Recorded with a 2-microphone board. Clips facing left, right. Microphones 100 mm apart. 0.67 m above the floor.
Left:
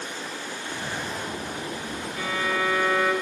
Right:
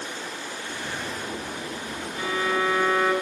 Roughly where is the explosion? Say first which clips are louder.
Left 1 dB; left.